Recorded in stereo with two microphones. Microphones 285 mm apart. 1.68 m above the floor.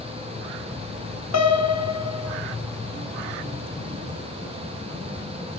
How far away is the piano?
About 0.6 m.